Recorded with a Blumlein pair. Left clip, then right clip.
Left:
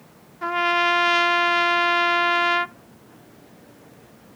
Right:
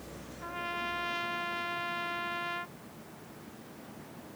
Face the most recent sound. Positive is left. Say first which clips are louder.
# left 16 dB
turn(degrees=35)